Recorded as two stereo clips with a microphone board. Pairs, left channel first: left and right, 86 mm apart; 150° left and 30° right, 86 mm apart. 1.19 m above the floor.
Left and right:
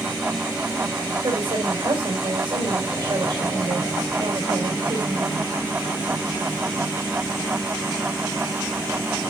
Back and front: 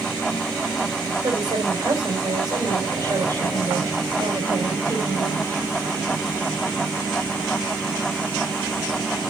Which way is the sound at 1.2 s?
65° right.